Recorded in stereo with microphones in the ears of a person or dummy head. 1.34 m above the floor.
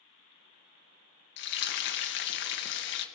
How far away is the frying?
About 1.7 m.